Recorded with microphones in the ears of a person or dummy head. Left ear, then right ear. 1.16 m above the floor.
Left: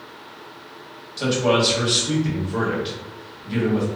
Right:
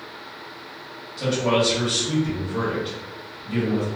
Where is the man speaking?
20° left (ahead or behind), 1.1 m.